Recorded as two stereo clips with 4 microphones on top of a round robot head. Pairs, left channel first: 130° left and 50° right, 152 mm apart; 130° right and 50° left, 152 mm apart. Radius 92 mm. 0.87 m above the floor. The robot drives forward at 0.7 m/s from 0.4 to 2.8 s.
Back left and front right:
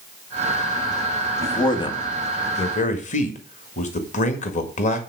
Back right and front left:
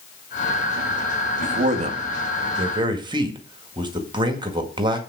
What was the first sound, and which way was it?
A man speaking, 70° left.